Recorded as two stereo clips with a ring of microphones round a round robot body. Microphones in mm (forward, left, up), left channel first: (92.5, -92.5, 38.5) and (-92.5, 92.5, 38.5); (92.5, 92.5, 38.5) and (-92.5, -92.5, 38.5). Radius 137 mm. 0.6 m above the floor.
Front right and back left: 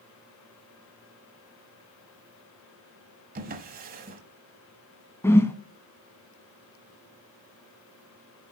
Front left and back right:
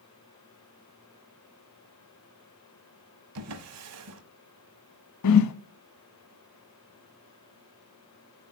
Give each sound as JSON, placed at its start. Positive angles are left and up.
{"t": 3.4, "sound": "a drawer", "azimuth_deg": -165, "distance_m": 1.1}
{"t": 5.2, "sound": "a whoosh", "azimuth_deg": 35, "distance_m": 0.7}